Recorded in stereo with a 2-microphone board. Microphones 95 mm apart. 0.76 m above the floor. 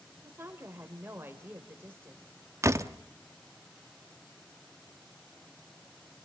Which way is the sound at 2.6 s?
30° right (ahead or behind).